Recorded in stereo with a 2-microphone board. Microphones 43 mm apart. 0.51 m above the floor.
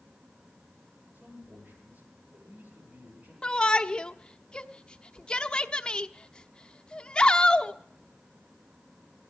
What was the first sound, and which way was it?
A man speaking, 35° right (ahead or behind).